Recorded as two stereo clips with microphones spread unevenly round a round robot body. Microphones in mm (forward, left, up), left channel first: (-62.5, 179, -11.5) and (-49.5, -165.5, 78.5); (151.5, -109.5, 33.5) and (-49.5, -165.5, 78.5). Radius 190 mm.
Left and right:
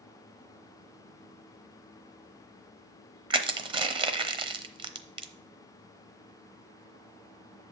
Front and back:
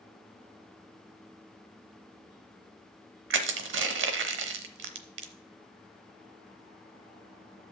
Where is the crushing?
160° right, 1.0 m.